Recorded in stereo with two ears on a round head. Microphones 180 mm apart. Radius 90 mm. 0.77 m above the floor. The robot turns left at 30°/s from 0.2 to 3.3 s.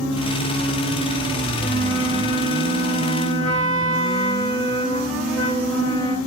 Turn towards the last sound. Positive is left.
turn(degrees=0)